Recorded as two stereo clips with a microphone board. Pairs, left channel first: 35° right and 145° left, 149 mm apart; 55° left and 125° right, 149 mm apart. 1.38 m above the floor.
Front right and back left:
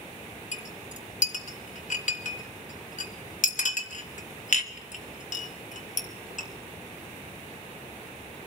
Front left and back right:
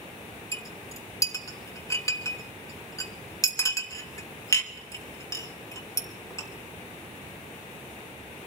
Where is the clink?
10° right, 1.3 m.